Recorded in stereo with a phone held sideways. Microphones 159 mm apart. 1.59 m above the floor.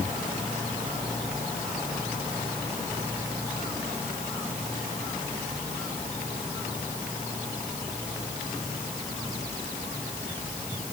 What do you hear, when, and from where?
Only background noise.